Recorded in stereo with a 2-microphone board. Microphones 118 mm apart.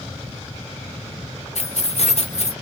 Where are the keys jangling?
65° left (ahead or behind), 0.7 m.